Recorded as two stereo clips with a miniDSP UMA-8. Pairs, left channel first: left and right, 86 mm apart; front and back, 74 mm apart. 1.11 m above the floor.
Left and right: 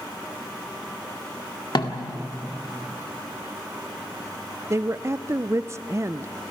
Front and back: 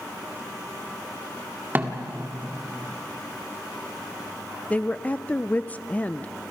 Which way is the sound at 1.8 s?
115° left.